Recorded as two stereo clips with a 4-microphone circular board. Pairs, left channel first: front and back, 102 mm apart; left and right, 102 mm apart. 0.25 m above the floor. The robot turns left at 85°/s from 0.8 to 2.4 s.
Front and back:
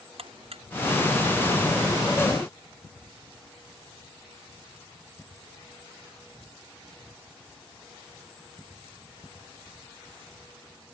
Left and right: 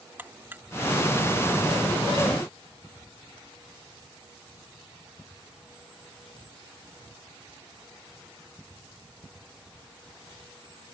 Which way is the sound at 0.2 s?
160° right.